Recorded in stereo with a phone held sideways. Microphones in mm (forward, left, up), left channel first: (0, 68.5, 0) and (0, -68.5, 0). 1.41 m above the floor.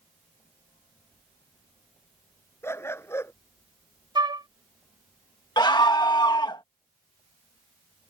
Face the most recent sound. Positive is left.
turn(degrees=30)  # may be behind; listen again after turning